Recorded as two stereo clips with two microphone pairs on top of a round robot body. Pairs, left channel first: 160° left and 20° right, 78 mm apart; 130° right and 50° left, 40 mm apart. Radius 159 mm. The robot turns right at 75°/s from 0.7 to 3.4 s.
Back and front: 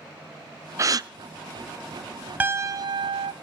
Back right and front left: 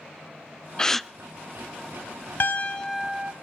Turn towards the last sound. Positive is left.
turn(degrees=-15)